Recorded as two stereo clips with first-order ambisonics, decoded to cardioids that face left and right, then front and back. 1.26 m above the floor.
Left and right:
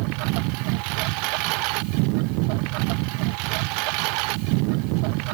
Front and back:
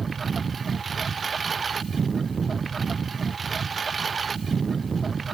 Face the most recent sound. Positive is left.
turn(degrees=-105)